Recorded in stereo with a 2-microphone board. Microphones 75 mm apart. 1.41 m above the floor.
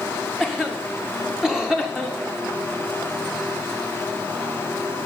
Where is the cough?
5° right (ahead or behind), 1.4 m.